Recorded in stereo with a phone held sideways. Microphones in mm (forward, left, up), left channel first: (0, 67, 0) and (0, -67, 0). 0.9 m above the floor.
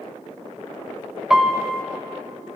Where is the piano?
5° right (ahead or behind), 0.8 m.